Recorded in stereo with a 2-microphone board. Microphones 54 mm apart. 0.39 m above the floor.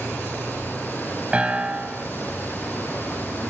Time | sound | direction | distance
1.3 | a piano | 20° right (ahead or behind) | 1.3 m